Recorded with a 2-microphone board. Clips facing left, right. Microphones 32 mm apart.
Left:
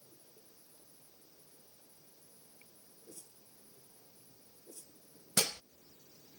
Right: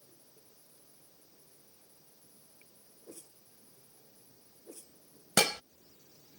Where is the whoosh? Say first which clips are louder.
Right 5 dB; 40° right (ahead or behind).